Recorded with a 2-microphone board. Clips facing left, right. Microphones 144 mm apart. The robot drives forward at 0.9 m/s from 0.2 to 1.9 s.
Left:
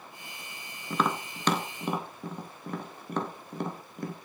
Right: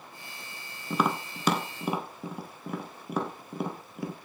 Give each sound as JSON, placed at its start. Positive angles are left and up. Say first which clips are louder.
{"t": 0.9, "sound": "tapping", "louder": "right 1 dB", "side_deg": -10, "distance_m": 1.0}